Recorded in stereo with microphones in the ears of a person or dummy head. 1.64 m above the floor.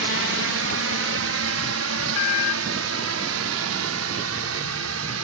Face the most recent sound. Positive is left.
turn(degrees=-80)